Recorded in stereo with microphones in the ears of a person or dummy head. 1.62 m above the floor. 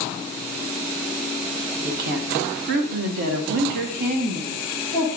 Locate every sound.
1.8 s a woman speaking: 50° right (ahead or behind), 1.1 m; by 5.1 s 35° right (ahead or behind), 1.8 m